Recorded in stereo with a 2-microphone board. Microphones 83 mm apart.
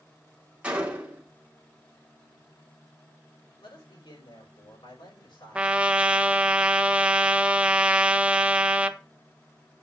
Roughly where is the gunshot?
Centre.